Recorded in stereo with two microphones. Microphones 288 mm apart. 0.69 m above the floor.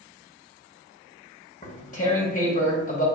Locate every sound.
1.6 s tearing paper: 25° left (ahead or behind), 1.2 m